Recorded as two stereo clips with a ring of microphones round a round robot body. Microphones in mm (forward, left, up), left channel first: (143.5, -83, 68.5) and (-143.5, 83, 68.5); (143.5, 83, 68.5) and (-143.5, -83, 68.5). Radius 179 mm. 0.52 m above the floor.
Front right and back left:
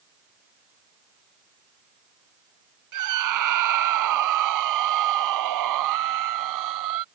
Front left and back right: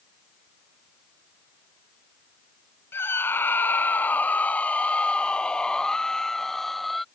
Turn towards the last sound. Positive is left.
turn(degrees=120)